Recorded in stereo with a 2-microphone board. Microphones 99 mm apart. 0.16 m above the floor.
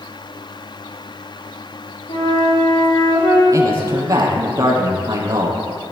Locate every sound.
2.1 s a flute: 85° left, 7.5 m
3.5 s a man speaking: 35° right (ahead or behind), 4.5 m